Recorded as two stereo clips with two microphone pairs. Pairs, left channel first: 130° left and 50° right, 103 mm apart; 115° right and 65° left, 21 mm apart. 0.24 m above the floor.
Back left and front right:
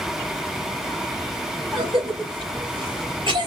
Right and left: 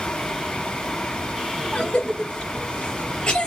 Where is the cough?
90° right, 3.5 m.